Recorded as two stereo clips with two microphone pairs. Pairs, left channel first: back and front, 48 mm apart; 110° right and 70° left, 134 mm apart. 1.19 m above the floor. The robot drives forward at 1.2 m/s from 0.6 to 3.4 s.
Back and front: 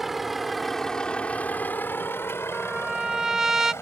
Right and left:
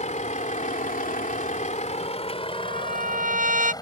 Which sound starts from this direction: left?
A trumpet, at 2.5 s.